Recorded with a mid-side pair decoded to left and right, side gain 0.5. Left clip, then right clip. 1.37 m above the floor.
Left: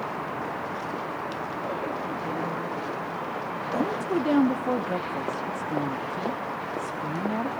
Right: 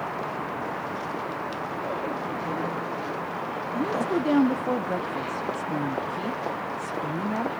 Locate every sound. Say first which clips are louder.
3.8 s a woman speaking: right 1 dB; straight ahead, 0.7 m